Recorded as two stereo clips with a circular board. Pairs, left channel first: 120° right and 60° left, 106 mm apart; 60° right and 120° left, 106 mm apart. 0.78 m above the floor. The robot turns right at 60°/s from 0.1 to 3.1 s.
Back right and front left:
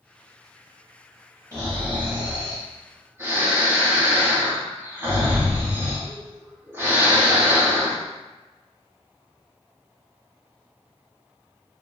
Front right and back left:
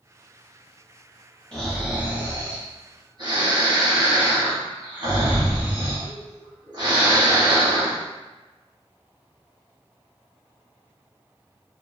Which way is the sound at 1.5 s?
20° left.